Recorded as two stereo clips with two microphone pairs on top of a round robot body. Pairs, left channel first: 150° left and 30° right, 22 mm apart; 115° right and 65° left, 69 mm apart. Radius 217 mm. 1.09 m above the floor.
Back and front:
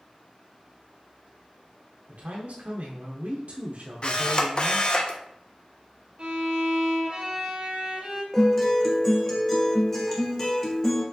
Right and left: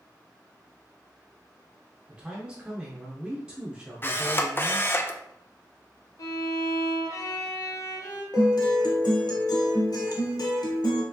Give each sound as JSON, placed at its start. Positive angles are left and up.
{"t": 2.1, "sound": "a man speaking", "azimuth_deg": -10, "distance_m": 0.7}
{"t": 4.0, "sound": "a camera shutter", "azimuth_deg": -170, "distance_m": 0.8}
{"t": 6.2, "sound": "a violin", "azimuth_deg": -75, "distance_m": 0.7}
{"t": 8.3, "sound": "a guitar", "azimuth_deg": -135, "distance_m": 1.0}